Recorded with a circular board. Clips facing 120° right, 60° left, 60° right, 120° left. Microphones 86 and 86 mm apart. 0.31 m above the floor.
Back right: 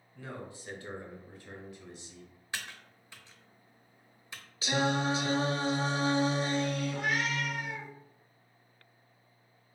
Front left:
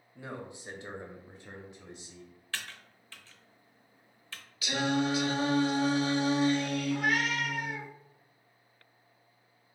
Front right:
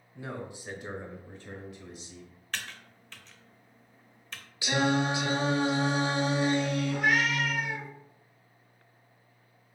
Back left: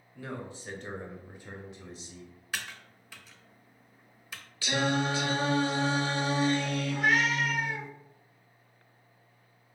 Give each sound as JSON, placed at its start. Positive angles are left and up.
{"t": 0.1, "sound": "a man speaking", "azimuth_deg": -5, "distance_m": 1.2}
{"t": 2.5, "sound": "typing on a keyboard", "azimuth_deg": -170, "distance_m": 0.6}
{"t": 4.6, "sound": "singing", "azimuth_deg": -115, "distance_m": 0.7}
{"t": 6.9, "sound": "a cat meowing", "azimuth_deg": 25, "distance_m": 1.3}